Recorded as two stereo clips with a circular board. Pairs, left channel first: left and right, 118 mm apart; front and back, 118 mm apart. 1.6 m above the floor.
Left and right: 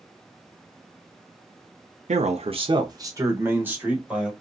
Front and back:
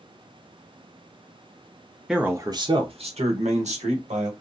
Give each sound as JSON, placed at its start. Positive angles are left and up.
{"t": 2.1, "sound": "a man speaking", "azimuth_deg": -95, "distance_m": 0.5}